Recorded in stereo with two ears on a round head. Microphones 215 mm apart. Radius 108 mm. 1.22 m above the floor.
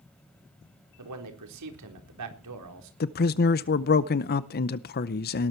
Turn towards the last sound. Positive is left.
turn(degrees=40)  # may be behind; listen again after turning